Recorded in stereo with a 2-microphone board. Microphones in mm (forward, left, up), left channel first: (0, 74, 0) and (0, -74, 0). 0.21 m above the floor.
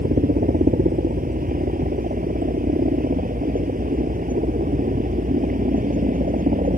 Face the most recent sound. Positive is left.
turn(degrees=-65)  # may be behind; listen again after turning